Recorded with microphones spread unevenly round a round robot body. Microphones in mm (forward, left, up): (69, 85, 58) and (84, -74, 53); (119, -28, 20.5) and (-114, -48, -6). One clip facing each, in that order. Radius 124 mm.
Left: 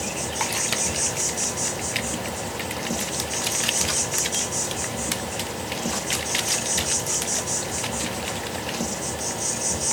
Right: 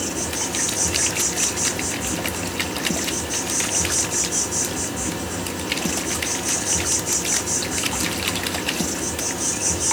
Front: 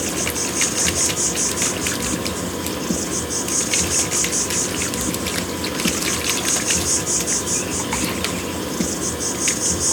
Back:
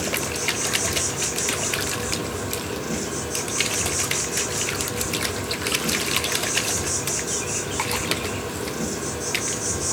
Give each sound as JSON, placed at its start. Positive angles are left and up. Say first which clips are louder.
{"t": 0.0, "sound": "an insect", "louder": "right 2 dB, front 3 dB", "azimuth_deg": -45, "distance_m": 1.3}